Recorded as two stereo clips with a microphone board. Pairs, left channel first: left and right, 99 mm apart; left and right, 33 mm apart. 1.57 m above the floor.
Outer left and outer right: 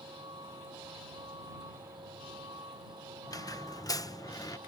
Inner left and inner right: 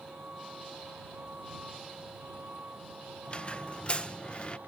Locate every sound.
0.0 s a vehicle: 50° right (ahead or behind); by 4.7 s 55° right (ahead or behind)
3.3 s a squeak: 35° left (ahead or behind)